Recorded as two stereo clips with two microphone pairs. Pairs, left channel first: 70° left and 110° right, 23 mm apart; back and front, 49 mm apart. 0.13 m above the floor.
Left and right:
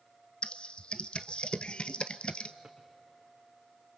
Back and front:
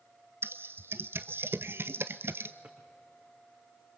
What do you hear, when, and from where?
0.4 s typing on a keyboard: 40° left, 0.7 m
2.6 s a drawer: 40° right, 4.5 m